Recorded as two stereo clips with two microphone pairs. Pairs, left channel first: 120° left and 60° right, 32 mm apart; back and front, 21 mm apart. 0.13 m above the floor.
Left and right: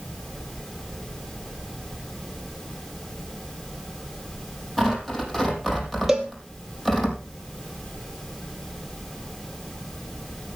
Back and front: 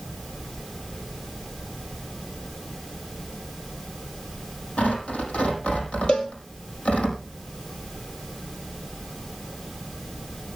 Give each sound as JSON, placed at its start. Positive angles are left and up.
{"t": 4.8, "sound": "tearing paper", "azimuth_deg": -155, "distance_m": 5.5}
{"t": 6.1, "sound": "a cowbell", "azimuth_deg": -140, "distance_m": 2.5}